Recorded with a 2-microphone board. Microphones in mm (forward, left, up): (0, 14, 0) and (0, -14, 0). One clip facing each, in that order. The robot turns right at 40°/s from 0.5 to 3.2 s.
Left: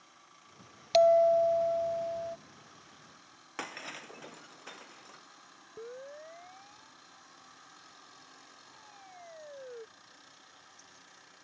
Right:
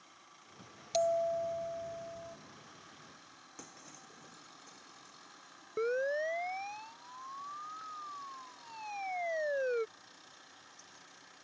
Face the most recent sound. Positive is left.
turn(degrees=-75)  # may be behind; listen again after turning